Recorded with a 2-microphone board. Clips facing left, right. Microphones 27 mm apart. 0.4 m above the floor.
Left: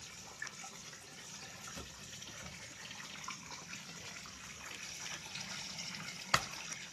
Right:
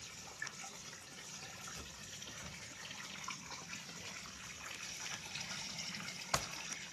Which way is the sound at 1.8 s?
70° left (ahead or behind).